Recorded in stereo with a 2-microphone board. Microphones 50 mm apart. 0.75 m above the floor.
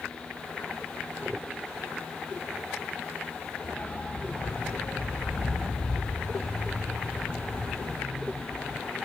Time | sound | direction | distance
3.6 | a dog barking | 35° left (ahead or behind) | 7 m